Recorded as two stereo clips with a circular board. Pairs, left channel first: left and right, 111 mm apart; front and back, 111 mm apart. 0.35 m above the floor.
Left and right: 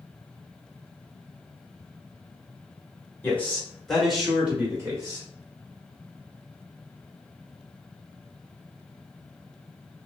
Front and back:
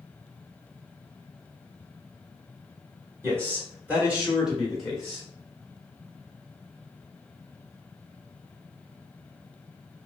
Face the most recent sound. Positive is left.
turn(degrees=-80)